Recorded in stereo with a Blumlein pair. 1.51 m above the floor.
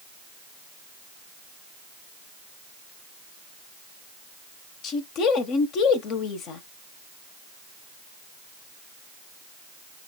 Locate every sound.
4.8 s a woman speaking: 35° left, 1.1 m